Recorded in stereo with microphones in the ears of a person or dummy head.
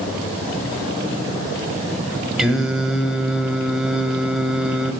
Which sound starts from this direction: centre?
Singing, at 2.4 s.